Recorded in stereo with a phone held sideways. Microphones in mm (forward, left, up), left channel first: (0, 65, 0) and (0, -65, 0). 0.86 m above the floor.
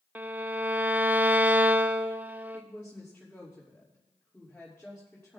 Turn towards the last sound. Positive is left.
turn(degrees=10)  # may be behind; listen again after turning